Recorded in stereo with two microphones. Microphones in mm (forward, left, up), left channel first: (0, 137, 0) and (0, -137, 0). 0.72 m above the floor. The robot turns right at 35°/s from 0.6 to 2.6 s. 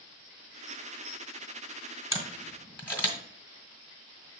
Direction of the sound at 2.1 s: 10° right (ahead or behind).